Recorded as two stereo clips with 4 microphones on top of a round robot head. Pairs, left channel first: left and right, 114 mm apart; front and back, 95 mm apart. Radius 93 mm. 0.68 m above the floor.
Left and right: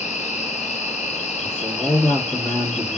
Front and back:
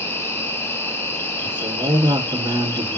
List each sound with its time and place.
0.0 s an insect: 65° left, 0.8 m
1.4 s a man speaking: 160° left, 1.4 m